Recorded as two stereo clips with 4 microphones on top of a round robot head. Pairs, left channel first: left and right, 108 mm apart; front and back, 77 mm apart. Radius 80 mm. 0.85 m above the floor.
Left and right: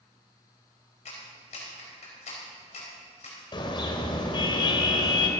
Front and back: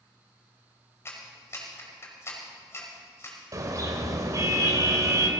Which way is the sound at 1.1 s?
55° left.